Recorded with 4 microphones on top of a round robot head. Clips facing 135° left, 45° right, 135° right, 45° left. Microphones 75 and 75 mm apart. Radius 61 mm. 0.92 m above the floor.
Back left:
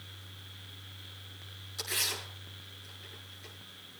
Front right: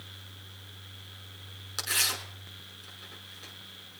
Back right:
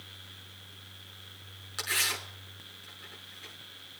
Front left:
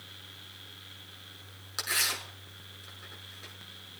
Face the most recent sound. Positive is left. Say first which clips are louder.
# front right 4 dB, even
turn(degrees=-30)